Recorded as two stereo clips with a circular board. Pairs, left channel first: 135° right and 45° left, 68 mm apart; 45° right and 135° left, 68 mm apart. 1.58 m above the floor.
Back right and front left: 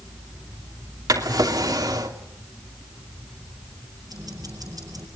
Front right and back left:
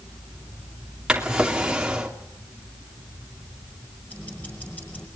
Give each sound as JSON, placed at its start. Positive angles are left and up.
{"t": 1.1, "sound": "a drawer", "azimuth_deg": 55, "distance_m": 2.5}
{"t": 4.1, "sound": "ticking", "azimuth_deg": 20, "distance_m": 5.5}